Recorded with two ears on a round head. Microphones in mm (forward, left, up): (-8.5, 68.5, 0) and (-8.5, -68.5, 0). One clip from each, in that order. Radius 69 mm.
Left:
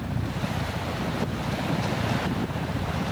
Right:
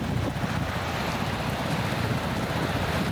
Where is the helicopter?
45° right (ahead or behind).